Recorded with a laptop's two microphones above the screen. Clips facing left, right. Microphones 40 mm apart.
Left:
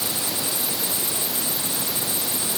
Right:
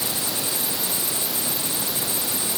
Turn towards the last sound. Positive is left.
No sound to turn to.